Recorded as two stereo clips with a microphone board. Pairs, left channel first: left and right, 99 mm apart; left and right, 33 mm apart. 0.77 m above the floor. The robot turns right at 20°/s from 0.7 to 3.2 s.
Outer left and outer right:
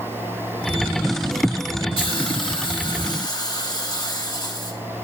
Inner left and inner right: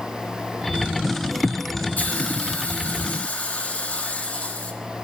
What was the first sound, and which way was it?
A hiss, 60° left (ahead or behind).